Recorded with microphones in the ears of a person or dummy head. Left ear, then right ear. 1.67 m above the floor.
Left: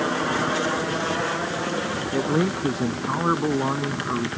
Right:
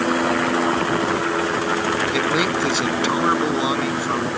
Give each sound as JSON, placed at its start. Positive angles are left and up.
{"t": 2.1, "sound": "a man speaking", "side_deg": -85}